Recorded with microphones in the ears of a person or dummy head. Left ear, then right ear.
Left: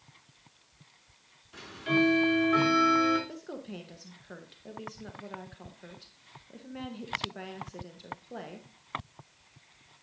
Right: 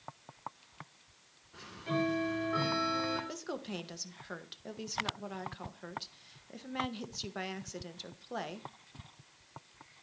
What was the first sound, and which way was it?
Ticking, 60° left (ahead or behind).